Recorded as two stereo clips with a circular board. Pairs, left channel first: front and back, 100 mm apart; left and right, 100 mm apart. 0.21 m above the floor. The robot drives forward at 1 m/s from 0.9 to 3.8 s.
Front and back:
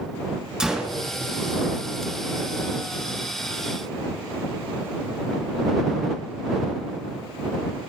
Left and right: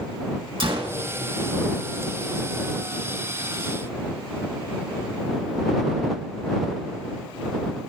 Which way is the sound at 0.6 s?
100° right.